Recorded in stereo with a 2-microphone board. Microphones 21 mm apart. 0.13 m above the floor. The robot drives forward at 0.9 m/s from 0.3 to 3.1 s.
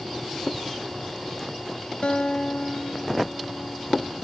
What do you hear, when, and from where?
2.0 s a guitar: 65° left (ahead or behind); by 4.2 s 60° left (ahead or behind)